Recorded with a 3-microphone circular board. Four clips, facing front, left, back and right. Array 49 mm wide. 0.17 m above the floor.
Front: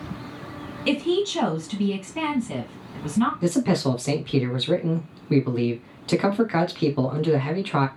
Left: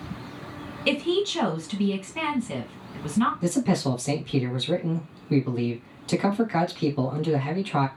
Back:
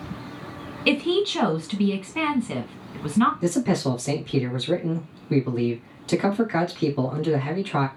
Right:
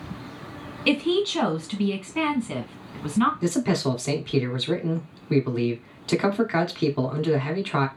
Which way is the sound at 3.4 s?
50° right.